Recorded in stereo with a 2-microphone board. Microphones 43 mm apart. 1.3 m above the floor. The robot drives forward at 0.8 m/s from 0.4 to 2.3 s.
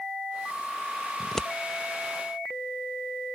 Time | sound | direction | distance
1.2 | scissors | 15° left (ahead or behind) | ?